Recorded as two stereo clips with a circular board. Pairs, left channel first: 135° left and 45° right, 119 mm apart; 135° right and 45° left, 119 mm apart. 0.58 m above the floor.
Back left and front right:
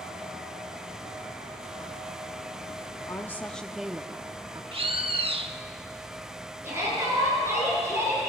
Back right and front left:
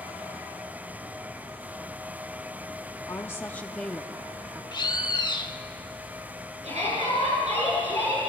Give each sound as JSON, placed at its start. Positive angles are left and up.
{"t": 3.1, "sound": "a woman speaking", "azimuth_deg": 180, "distance_m": 0.7}
{"t": 4.7, "sound": "a bird", "azimuth_deg": -85, "distance_m": 0.6}
{"t": 6.6, "sound": "a shout", "azimuth_deg": 25, "distance_m": 8.0}